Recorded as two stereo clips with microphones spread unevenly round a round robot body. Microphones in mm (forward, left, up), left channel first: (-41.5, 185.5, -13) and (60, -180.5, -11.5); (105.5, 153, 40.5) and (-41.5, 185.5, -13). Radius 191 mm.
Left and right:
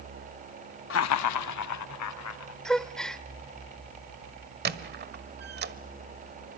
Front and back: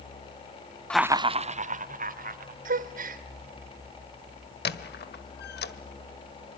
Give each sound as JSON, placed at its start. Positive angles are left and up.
{"t": 0.9, "sound": "laughter", "azimuth_deg": 100, "distance_m": 0.6}
{"t": 2.6, "sound": "a gasp", "azimuth_deg": -165, "distance_m": 0.9}
{"t": 4.7, "sound": "a squeak", "azimuth_deg": -10, "distance_m": 1.3}